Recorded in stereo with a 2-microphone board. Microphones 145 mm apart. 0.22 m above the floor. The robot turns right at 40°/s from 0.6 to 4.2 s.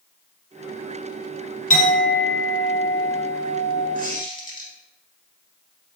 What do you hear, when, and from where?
1.7 s a clink: 100° left, 1.7 m; by 3.9 s 170° right, 1.7 m
4.0 s a squeak: 70° right (ahead or behind), 1.4 m; by 4.7 s 65° right (ahead or behind), 1.4 m